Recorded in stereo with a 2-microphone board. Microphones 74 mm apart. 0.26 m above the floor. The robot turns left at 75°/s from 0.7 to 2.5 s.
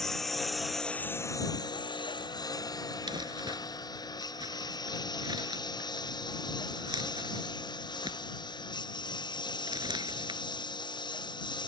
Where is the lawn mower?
5° left (ahead or behind); by 11.7 s 75° left (ahead or behind).